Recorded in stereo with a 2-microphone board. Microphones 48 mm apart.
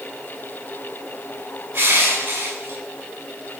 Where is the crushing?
70° right (ahead or behind), 5.5 m.